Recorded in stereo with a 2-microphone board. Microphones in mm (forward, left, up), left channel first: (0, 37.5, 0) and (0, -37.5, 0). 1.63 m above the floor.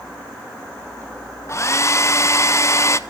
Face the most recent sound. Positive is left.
turn(degrees=40)  # may be behind; listen again after turning